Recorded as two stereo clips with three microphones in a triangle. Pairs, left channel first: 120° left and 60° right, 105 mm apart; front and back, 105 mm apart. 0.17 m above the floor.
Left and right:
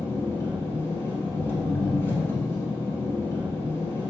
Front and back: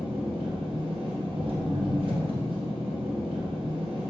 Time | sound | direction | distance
0.0 | an engine running | 175° right | 1.4 m